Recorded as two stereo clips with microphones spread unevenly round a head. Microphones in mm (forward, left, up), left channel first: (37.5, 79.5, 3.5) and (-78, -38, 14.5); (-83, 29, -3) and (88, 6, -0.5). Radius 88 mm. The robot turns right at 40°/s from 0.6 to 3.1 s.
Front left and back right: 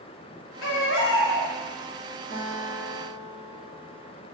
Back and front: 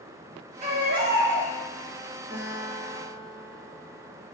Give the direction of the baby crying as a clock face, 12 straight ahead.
11 o'clock.